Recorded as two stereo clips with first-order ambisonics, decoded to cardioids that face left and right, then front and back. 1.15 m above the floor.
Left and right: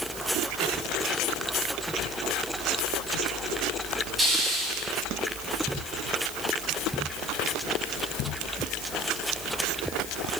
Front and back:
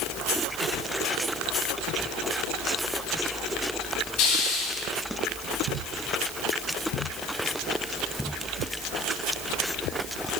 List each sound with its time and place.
4.2 s a hiss: 10° right, 5.5 m